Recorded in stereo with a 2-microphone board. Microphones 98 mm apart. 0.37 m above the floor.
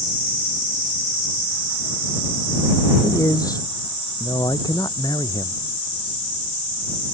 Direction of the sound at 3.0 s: 40° left (ahead or behind).